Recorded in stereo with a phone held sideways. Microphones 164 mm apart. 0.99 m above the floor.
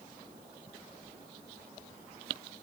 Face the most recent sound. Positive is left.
No sound to turn to.